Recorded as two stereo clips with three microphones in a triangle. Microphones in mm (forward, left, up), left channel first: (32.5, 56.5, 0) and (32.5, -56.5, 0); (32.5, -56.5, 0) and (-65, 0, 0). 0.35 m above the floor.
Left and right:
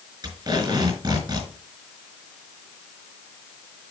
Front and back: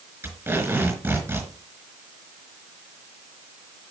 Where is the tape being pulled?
140° right, 4.5 m.